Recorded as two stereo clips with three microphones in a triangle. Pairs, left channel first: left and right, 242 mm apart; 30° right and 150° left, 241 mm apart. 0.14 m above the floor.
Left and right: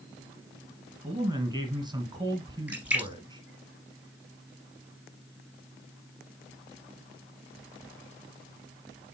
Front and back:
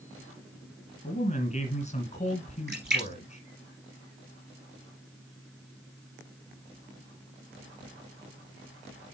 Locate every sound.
1.0 s a man speaking: 40° right, 1.9 m
2.7 s a splash: 170° right, 2 m